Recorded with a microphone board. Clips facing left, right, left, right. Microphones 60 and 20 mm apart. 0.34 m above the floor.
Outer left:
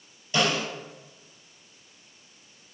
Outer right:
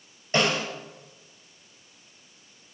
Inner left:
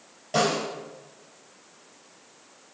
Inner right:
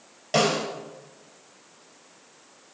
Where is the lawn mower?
I don't hear a lawn mower.